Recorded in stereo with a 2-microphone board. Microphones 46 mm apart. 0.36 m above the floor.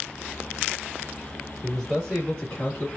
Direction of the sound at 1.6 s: 10° left (ahead or behind).